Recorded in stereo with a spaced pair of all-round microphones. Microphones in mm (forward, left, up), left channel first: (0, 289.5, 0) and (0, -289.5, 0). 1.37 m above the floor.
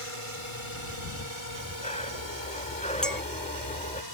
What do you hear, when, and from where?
0.0 s a drone: 60° right (ahead or behind); by 4.2 s 40° right (ahead or behind)
1.5 s breathing: 10° left (ahead or behind)
3.0 s a clink: centre (ahead or behind)